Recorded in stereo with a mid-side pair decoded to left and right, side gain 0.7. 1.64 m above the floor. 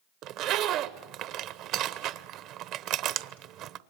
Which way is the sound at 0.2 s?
60° right.